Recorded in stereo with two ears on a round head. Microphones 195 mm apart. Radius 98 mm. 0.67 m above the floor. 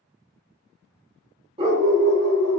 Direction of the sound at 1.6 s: 25° right (ahead or behind).